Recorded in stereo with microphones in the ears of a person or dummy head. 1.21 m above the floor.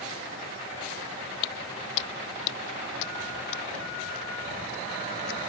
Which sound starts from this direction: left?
Footsteps, at 1.4 s.